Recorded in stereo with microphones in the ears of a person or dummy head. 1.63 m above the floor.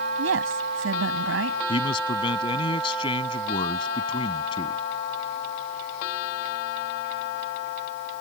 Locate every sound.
0.2 s a woman speaking: 80° right
1.7 s a man speaking: 30° left (ahead or behind)